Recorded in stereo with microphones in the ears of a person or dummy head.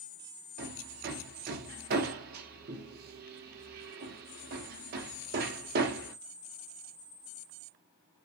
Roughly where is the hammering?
Right.